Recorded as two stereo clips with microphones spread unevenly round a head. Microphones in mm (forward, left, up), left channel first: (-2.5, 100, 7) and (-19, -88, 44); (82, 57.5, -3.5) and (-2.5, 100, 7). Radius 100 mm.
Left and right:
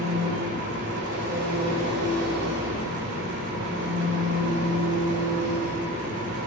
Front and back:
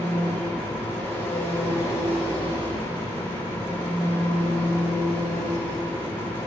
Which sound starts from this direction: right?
An engine running, at 0.0 s.